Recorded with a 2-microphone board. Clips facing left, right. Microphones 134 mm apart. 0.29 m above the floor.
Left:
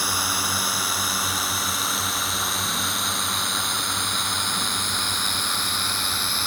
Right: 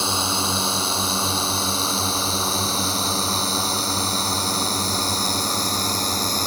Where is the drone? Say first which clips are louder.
Right 4 dB; 25° right (ahead or behind); by 6.5 s 40° right (ahead or behind).